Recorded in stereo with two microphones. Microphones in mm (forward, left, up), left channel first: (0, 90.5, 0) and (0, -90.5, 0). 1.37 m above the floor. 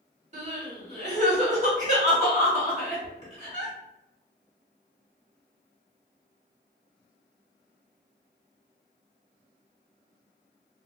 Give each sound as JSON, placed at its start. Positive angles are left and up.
{"t": 0.3, "sound": "crying", "side_deg": -40, "distance_m": 1.3}